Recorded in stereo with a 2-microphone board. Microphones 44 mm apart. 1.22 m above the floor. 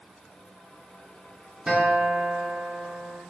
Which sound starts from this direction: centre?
A guitar, at 1.7 s.